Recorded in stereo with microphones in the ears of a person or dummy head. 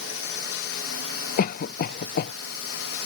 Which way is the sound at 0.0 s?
65° left (ahead or behind).